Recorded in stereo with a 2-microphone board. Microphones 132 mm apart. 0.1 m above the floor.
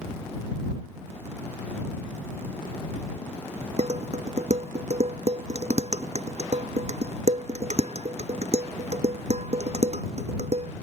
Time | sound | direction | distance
3.8 | dishes clattering | 55° right (ahead or behind) | ?